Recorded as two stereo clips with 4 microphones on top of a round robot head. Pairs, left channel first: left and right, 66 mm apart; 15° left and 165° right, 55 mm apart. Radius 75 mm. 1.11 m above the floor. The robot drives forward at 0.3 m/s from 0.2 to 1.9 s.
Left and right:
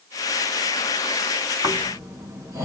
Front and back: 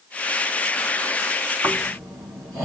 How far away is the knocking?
I don't hear knocking.